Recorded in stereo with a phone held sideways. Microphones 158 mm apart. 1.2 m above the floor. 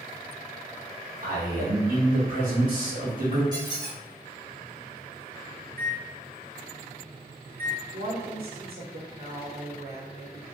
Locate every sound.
1.2 s a man speaking: 55° right (ahead or behind), 1.1 m
3.5 s a squeak: 30° right (ahead or behind), 1.3 m
5.7 s a microwave: 65° right (ahead or behind), 0.6 m
7.9 s a woman speaking: 70° right (ahead or behind), 1.0 m